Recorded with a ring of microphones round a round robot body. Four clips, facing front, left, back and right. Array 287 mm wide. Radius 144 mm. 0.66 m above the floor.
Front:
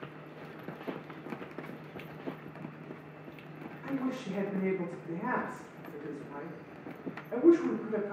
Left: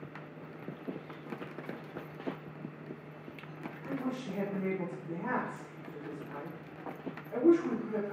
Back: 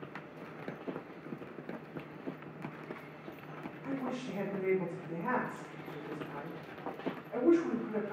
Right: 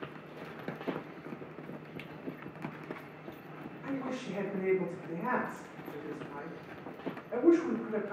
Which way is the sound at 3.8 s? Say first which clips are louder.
Even, front 3 dB; 5° right.